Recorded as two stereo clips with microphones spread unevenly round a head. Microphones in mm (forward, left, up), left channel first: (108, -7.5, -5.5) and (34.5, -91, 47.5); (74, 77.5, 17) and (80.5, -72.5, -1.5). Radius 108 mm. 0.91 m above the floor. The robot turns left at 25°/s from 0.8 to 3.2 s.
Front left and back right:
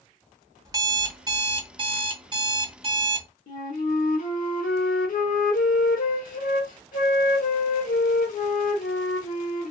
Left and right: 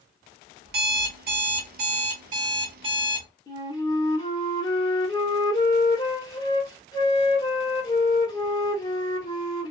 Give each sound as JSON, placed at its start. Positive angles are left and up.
{"t": 0.7, "sound": "an alarm clock", "azimuth_deg": -105, "distance_m": 0.7}
{"t": 3.5, "sound": "a flute", "azimuth_deg": 30, "distance_m": 0.9}